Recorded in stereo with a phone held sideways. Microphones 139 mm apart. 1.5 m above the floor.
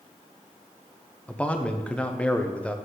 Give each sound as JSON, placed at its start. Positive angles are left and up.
{"t": 1.3, "sound": "a man speaking", "side_deg": 10, "distance_m": 0.7}